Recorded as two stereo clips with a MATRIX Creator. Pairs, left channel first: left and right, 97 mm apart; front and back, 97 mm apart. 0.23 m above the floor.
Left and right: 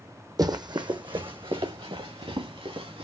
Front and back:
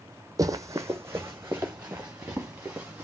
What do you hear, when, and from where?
0.4 s running footsteps: 135° right, 0.6 m; by 3.0 s 105° right, 1.9 m